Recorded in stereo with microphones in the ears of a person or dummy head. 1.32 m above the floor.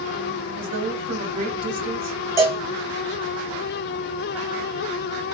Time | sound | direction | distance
0.6 | a woman speaking | 45° right (ahead or behind) | 1.9 m
2.4 | a cowbell | 20° right (ahead or behind) | 1.0 m